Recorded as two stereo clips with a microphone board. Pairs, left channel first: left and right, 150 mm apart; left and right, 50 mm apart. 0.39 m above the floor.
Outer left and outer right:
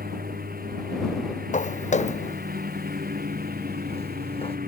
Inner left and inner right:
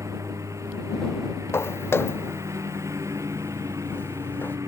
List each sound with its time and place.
0.0 s a lawn mower: 80° right
1.5 s footsteps: 55° left (ahead or behind); by 4.6 s 40° left (ahead or behind)